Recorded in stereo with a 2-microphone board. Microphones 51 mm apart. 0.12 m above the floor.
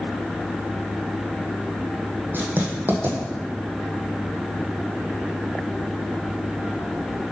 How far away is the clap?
I don't hear a clap.